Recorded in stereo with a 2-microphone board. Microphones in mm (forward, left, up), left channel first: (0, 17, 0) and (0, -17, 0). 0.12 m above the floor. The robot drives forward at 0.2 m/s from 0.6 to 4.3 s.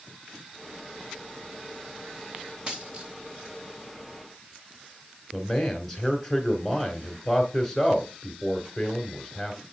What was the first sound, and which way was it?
A dropped coin, 30° right (ahead or behind).